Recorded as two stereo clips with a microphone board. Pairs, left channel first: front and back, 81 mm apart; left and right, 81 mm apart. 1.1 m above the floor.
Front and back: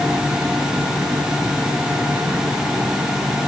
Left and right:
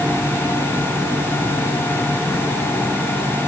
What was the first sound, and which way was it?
Only background noise.